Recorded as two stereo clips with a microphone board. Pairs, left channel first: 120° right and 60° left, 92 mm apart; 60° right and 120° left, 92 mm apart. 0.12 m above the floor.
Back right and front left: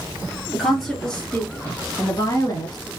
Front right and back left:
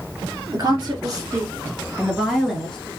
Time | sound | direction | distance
0.5 | a woman speaking | 145° left | 2.5 m